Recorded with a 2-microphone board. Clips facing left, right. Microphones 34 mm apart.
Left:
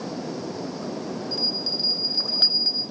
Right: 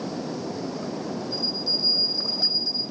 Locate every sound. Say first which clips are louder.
1.3 s a bell: left 1 dB; 55° left (ahead or behind), 1.8 m